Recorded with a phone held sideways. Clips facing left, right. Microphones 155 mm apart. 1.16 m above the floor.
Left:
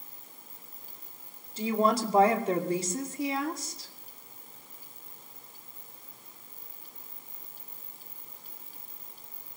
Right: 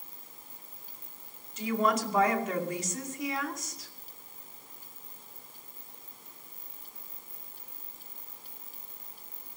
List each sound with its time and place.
1.6 s a woman speaking: 30° left (ahead or behind), 2.5 m